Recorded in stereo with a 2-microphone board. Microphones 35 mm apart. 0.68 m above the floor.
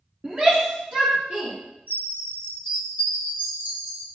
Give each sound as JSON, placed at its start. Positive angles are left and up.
{"t": 0.2, "sound": "a shout", "side_deg": -35, "distance_m": 1.3}
{"t": 1.9, "sound": "a chime", "side_deg": -55, "distance_m": 2.5}